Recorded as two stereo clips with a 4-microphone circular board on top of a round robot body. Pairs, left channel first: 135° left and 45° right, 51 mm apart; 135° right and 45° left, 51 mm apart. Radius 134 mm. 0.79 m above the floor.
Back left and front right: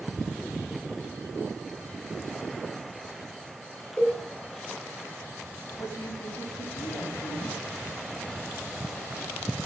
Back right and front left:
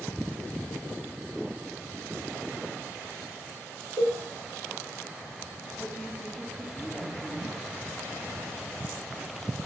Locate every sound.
4.0 s a cowbell: 70° left, 7.5 m
5.8 s a woman speaking: 110° left, 5.5 m